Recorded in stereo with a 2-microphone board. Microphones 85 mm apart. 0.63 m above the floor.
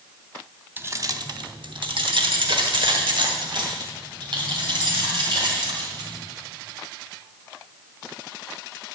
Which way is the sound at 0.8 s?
25° right (ahead or behind).